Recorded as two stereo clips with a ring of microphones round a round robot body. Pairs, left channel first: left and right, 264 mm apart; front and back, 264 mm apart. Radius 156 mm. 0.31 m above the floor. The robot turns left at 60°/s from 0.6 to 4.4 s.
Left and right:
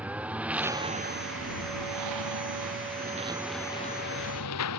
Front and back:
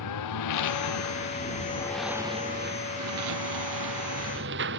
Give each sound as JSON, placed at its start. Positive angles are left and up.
{"t": 0.0, "sound": "a lawn mower", "azimuth_deg": -5}